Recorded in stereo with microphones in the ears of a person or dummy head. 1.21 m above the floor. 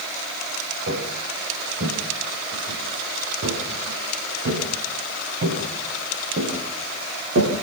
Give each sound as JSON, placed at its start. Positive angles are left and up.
{"t": 0.9, "sound": "footsteps", "side_deg": -50, "distance_m": 7.0}